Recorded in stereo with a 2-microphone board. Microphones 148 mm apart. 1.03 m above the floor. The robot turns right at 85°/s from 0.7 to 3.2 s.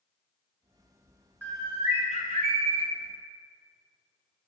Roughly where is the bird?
Behind.